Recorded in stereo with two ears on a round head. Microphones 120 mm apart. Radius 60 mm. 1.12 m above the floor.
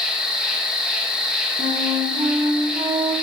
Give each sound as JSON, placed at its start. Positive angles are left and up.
{"t": 0.0, "sound": "an insect", "side_deg": -5, "distance_m": 1.0}
{"t": 1.6, "sound": "a flute", "side_deg": -30, "distance_m": 1.0}